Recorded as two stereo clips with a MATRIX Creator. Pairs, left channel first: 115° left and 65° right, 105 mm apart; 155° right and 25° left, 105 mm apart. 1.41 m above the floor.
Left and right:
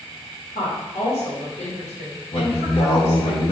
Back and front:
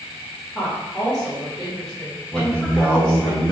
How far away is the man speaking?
About 1.3 m.